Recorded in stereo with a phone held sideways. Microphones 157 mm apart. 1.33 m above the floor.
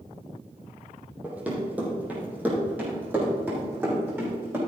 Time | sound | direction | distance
1.2 | running footsteps | 10° right (ahead or behind) | 3.5 m